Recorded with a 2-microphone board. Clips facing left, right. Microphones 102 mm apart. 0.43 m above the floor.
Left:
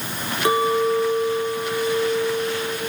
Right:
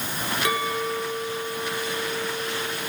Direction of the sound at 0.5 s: 30° left (ahead or behind).